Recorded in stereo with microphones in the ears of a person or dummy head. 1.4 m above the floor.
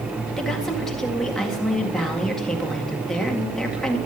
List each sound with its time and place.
0.4 s a woman speaking: centre (ahead or behind), 2.0 m